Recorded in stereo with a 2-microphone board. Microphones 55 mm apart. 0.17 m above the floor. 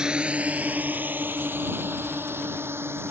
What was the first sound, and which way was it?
A drone, 15° right (ahead or behind).